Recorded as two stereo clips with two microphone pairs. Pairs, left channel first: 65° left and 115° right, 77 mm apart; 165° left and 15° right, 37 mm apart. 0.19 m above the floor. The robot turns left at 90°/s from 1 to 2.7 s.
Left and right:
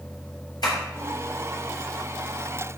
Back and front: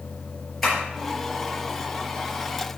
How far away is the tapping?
About 4 m.